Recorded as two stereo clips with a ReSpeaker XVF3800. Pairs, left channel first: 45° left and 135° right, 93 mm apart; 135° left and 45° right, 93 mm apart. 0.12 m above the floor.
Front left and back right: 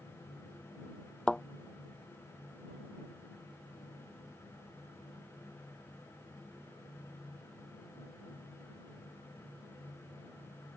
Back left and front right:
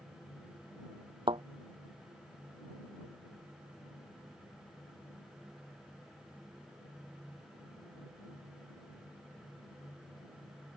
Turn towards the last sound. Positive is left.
turn(degrees=-40)